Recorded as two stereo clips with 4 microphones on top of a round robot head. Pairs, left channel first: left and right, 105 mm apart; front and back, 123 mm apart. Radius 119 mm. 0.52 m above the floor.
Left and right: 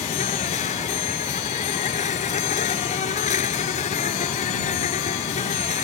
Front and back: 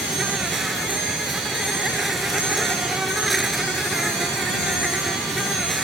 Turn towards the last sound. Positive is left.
turn(degrees=90)